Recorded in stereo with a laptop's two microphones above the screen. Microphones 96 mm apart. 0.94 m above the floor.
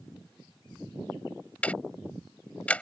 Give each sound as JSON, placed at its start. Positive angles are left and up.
{"t": 1.6, "sound": "ticking", "side_deg": 15}